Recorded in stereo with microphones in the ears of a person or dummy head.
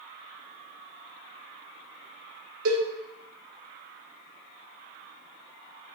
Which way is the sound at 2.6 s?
65° right (ahead or behind).